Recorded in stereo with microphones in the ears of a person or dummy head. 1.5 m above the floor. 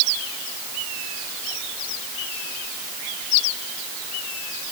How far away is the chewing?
I don't hear chewing.